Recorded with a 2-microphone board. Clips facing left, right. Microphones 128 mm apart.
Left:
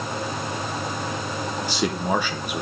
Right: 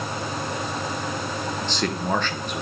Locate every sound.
1.6 s a man speaking: 10° left (ahead or behind), 1.1 m